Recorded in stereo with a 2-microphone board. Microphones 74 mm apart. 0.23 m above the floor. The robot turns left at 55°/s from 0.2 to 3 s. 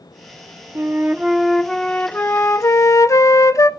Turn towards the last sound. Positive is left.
turn(degrees=100)